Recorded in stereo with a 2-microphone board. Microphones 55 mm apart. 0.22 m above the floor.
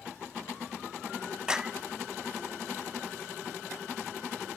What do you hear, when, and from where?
1.5 s a clap: 15° right (ahead or behind), 1.2 m